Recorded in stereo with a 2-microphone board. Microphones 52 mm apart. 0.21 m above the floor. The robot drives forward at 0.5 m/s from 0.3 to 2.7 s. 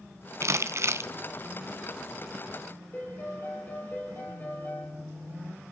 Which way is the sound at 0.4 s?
60° right (ahead or behind).